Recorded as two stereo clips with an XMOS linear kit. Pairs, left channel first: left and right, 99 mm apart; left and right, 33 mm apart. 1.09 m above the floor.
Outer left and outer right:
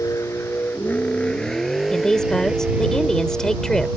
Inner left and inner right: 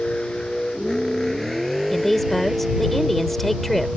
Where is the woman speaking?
5° left (ahead or behind).